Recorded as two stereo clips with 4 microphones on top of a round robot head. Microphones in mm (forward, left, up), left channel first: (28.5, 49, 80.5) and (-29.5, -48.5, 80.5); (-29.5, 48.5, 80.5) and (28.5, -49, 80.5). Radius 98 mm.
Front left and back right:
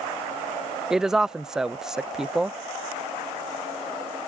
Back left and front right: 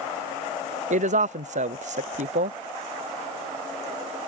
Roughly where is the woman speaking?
Ahead right.